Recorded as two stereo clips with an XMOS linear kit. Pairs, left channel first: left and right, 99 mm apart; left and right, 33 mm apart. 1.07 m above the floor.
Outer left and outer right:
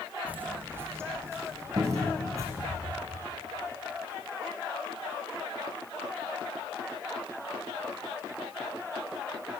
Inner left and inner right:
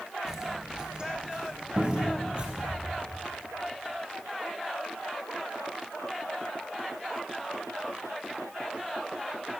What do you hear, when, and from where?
0.3 s footsteps: 15° right (ahead or behind), 1.1 m; by 2.8 s 30° right (ahead or behind), 1.8 m
1.8 s a cupboard door: 35° right (ahead or behind), 1.5 m